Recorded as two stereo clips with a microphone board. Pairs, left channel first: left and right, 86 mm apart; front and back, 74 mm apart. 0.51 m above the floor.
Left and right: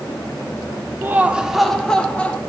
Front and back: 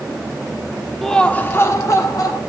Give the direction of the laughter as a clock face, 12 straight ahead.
3 o'clock.